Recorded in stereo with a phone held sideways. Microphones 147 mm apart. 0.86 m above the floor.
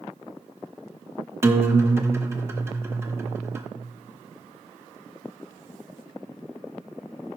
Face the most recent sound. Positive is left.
turn(degrees=-20)  # may be behind; listen again after turning